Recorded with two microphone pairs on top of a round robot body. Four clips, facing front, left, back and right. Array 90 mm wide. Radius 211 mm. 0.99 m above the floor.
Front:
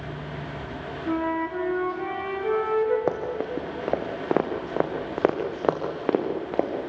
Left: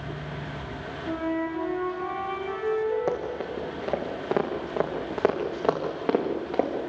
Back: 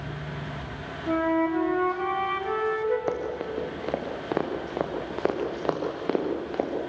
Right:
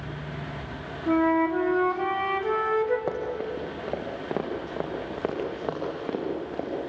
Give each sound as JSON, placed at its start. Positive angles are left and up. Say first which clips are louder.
{"t": 1.1, "sound": "a flute", "louder": "right 7 dB, back 3 dB", "azimuth_deg": -75, "distance_m": 4.0}
{"t": 3.1, "sound": "running footsteps", "louder": "even, front 2 dB", "azimuth_deg": 5, "distance_m": 3.0}